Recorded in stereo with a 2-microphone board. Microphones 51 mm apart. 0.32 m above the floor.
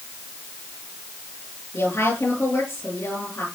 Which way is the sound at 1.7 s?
60° left (ahead or behind).